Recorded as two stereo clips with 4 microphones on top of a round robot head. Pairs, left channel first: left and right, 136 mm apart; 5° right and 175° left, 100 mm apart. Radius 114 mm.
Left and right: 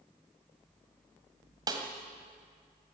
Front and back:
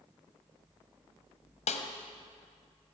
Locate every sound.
1.7 s a snare drum: 20° right, 1.6 m